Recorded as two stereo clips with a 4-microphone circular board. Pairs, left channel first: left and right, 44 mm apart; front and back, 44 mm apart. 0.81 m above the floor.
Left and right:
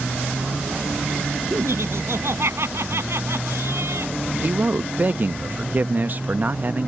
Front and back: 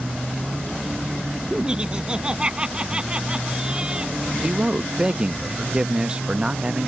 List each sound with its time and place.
1.5 s laughter: 110° right
4.4 s a man speaking: 120° right